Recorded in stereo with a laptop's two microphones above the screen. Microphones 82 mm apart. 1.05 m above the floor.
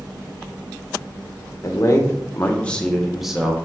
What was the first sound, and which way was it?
A man speaking, 40° left (ahead or behind).